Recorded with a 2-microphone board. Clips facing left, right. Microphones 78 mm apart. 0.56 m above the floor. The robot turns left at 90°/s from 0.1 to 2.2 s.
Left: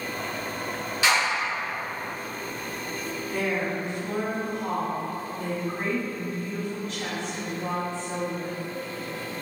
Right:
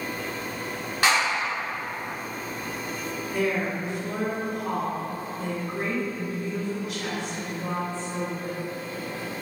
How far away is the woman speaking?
About 1.6 m.